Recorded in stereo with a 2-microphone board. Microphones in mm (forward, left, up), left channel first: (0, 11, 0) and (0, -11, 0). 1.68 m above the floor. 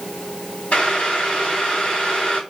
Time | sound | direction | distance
0.7 | boiling | 70° left (ahead or behind) | 4 m